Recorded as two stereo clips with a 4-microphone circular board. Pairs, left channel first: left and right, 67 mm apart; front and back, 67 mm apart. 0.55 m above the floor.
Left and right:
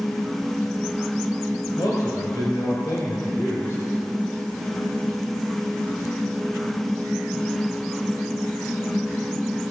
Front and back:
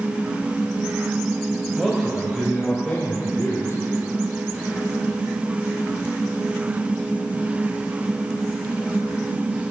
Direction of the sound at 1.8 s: 85° left.